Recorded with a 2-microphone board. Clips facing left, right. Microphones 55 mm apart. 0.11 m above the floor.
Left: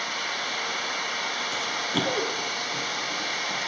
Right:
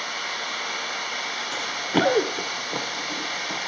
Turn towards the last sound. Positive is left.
turn(degrees=-85)